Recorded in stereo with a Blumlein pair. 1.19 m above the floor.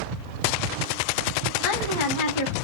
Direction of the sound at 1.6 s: 55° left.